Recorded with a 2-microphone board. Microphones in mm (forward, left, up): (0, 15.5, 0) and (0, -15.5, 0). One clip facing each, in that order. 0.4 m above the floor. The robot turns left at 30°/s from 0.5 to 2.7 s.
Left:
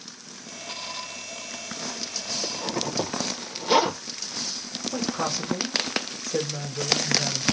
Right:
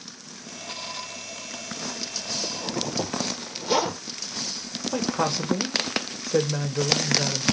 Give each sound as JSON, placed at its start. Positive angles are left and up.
{"t": 2.4, "sound": "a zipper", "side_deg": 25, "distance_m": 1.0}
{"t": 4.9, "sound": "a woman speaking", "side_deg": -40, "distance_m": 1.1}